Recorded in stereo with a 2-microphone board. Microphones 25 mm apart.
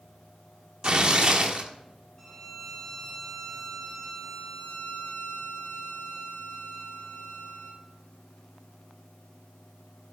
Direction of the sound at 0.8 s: 40° right (ahead or behind).